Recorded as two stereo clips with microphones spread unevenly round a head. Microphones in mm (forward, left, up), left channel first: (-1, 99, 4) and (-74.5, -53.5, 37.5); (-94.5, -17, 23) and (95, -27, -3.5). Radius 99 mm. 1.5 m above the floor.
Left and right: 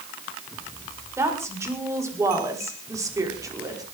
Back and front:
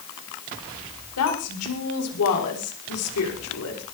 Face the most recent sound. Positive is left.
turn(degrees=175)